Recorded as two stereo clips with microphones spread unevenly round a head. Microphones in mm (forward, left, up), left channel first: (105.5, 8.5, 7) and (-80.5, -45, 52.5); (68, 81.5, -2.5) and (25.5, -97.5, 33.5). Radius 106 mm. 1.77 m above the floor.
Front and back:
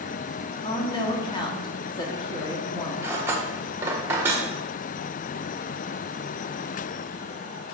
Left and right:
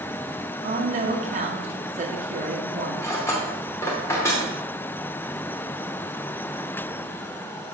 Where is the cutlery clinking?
160° left, 0.9 m.